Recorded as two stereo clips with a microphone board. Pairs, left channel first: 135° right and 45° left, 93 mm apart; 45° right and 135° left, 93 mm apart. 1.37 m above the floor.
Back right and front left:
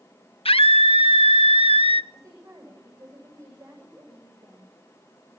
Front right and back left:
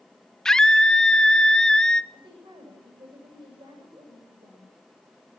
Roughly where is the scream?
Behind right.